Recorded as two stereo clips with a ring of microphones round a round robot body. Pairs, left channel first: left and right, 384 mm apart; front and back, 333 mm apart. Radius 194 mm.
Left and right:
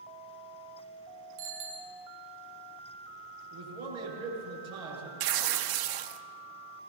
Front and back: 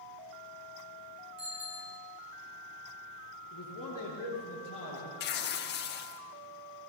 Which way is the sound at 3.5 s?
75° right.